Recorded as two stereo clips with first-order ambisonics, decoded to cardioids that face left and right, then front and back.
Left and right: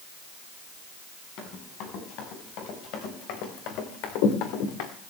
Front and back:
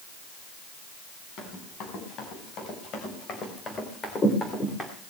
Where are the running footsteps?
45° left, 6 m; by 4.9 s 80° left, 3 m.